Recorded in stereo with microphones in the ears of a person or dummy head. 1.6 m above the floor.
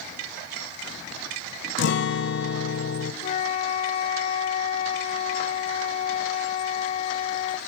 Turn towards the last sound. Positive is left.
turn(degrees=40)  # may be behind; listen again after turning